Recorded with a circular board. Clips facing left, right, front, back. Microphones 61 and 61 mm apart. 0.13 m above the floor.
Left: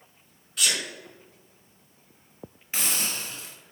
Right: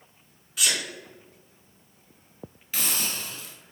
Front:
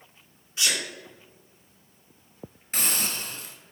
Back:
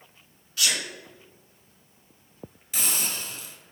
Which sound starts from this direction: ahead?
A sneeze, at 0.6 s.